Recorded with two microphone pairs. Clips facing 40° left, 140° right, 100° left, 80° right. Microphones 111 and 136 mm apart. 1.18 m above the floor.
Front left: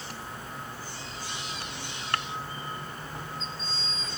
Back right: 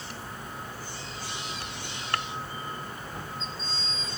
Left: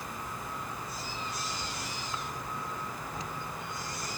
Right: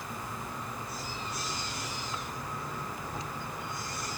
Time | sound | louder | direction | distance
0.0 | an insect | even, right 1 dB | 20° right | 1.8 m